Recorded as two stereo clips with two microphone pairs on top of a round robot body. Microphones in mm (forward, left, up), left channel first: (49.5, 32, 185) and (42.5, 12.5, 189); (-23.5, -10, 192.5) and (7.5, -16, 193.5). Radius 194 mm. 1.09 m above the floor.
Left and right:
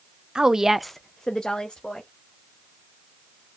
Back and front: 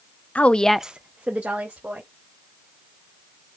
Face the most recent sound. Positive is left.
turn(degrees=20)